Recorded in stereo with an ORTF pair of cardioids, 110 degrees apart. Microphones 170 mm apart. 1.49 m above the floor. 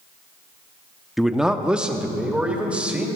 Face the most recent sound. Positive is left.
turn(degrees=-10)